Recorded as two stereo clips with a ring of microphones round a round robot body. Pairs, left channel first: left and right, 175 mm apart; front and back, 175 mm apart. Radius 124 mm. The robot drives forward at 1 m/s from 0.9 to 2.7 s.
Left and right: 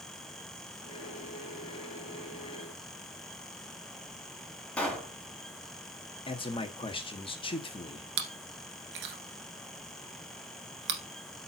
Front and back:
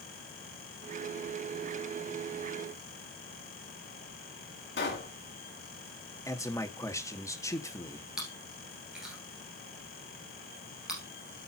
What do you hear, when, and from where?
4.8 s a pop: 5° left, 2.5 m
6.3 s a man speaking: 60° left, 1.3 m
8.2 s chewing: 95° right, 1.4 m